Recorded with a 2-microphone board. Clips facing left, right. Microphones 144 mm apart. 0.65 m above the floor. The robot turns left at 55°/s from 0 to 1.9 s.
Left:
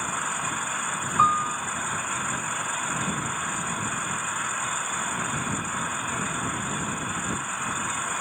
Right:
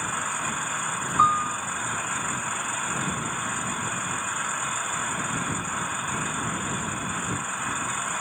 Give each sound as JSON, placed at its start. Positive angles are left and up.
{"t": 1.2, "sound": "a piano", "side_deg": 10}